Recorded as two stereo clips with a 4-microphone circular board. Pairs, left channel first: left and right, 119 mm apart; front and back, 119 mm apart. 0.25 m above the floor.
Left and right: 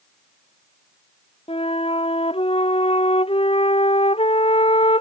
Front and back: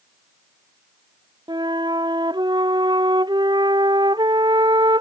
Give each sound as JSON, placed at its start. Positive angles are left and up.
{"t": 1.5, "sound": "a flute", "azimuth_deg": 125}